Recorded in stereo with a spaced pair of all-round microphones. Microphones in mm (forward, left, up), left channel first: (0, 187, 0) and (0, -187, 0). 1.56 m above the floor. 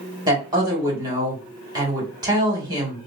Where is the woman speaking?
10° right (ahead or behind), 2.5 m.